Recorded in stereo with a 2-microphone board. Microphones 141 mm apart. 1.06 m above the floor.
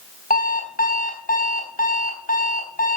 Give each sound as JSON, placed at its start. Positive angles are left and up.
{"t": 0.3, "sound": "an alarm clock", "side_deg": 85, "distance_m": 3.5}